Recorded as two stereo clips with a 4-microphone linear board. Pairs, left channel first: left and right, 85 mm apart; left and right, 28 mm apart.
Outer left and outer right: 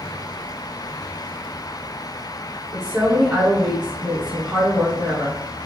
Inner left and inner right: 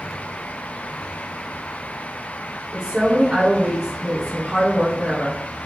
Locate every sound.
2.7 s a woman speaking: 10° right (ahead or behind), 1.7 m